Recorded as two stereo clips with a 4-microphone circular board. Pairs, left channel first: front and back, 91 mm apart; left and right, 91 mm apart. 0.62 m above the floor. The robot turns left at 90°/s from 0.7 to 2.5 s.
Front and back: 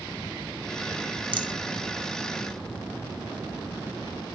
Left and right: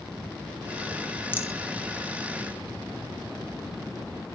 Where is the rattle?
155° left, 0.7 m; by 1.5 s 140° left, 0.7 m.